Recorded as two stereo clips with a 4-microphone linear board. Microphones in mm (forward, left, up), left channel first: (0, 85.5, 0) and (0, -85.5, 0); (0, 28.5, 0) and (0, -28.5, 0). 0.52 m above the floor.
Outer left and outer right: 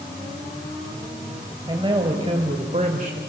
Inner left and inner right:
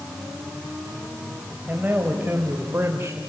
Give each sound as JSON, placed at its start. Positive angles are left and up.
{"t": 1.7, "sound": "a man speaking", "side_deg": -25, "distance_m": 3.0}